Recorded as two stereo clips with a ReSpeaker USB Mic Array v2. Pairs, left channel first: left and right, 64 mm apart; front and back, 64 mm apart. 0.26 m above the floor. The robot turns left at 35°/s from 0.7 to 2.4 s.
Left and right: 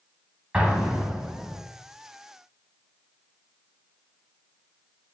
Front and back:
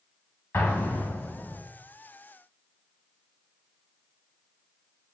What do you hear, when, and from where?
0.5 s an explosion: 20° right, 1.0 m; by 1.6 s 55° right, 1.0 m